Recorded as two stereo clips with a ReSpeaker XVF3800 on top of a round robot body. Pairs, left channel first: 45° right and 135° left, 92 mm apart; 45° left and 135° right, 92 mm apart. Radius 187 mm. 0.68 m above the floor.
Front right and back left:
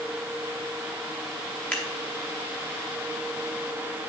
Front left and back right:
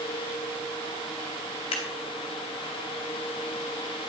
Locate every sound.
1.7 s scissors: 30° left, 0.6 m